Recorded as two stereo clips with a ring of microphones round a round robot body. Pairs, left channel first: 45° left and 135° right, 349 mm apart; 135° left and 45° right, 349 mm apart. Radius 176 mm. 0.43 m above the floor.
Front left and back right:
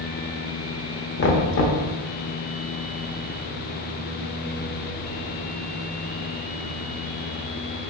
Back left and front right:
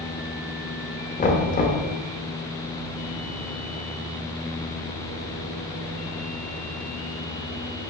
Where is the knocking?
80° left, 1.1 m.